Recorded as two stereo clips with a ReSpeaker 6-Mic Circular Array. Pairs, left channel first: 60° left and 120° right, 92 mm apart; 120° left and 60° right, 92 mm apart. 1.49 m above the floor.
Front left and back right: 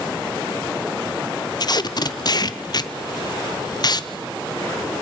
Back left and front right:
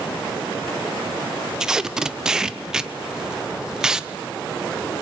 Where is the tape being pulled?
25° left, 0.8 m.